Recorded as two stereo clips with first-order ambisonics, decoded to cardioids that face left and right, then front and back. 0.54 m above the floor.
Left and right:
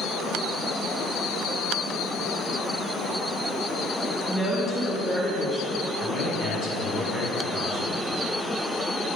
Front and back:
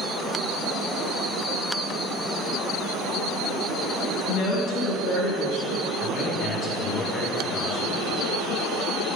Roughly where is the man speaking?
Left.